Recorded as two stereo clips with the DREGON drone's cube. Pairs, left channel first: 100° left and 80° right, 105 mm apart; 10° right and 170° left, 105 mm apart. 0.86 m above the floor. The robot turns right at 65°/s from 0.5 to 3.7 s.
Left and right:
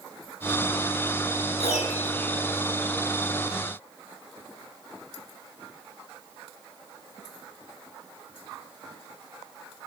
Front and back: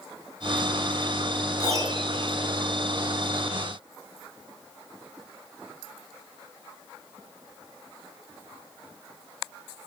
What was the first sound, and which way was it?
A piano, 100° left.